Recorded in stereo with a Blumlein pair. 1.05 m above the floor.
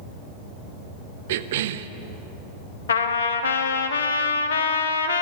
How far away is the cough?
About 0.5 m.